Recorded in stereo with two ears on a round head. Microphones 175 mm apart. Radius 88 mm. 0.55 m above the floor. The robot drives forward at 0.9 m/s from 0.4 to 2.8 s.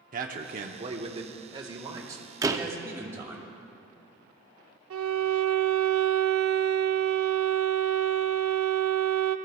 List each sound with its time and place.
0.1 s a man speaking: 45° right (ahead or behind), 0.8 m; by 3.4 s 15° right (ahead or behind), 2.5 m
2.4 s a door slam: 20° right (ahead or behind), 0.6 m; by 2.7 s 15° right (ahead or behind), 0.7 m
4.9 s a violin: 80° right, 0.5 m